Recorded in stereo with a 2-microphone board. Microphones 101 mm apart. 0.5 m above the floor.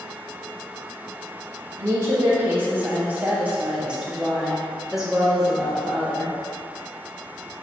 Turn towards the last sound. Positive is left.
turn(degrees=0)  # may be behind; listen again after turning